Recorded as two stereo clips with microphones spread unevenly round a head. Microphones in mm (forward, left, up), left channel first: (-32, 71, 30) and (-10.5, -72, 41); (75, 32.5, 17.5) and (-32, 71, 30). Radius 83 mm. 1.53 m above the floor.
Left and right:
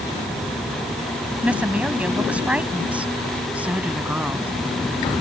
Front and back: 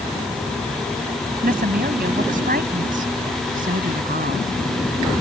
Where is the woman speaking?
165° right; by 4.5 s 160° right.